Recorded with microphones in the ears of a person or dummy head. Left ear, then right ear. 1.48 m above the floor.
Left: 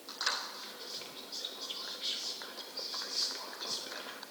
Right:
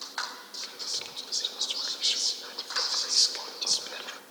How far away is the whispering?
About 0.5 m.